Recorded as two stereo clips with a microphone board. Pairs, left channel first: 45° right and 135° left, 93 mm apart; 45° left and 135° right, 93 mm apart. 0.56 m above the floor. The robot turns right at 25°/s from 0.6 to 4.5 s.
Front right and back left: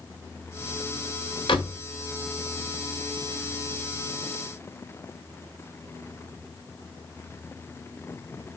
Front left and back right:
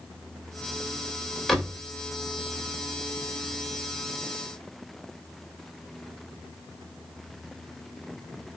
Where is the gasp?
No gasp in this recording.